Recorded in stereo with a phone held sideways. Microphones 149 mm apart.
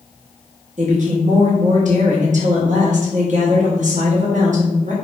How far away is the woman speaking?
About 0.9 m.